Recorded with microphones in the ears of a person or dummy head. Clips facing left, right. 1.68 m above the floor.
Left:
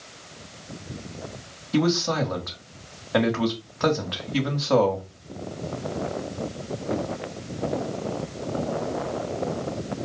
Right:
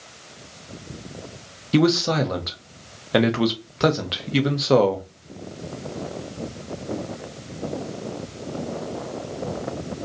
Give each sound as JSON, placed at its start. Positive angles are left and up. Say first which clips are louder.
{"t": 1.7, "sound": "a man speaking", "louder": "right 4 dB", "side_deg": -40, "distance_m": 1.1}